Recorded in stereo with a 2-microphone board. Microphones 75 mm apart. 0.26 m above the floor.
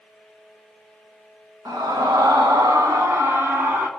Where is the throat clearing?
I don't hear throat clearing.